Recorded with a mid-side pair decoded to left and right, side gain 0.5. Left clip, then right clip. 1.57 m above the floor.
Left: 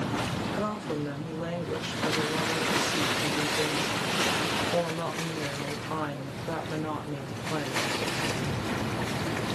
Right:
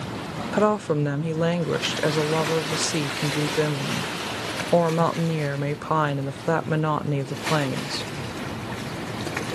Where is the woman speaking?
65° right, 0.5 m.